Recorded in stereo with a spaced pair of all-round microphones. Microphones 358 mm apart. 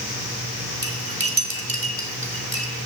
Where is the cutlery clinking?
60° right (ahead or behind), 2.5 m.